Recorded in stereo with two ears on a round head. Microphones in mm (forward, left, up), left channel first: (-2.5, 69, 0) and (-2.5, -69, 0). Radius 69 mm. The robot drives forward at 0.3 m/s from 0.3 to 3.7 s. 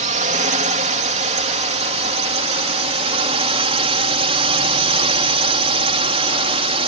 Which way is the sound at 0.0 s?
50° right (ahead or behind).